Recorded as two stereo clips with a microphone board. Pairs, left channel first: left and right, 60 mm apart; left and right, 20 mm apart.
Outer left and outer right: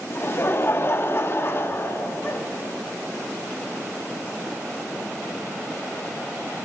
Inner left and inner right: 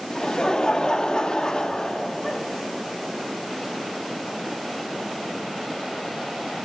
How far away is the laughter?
About 0.9 m.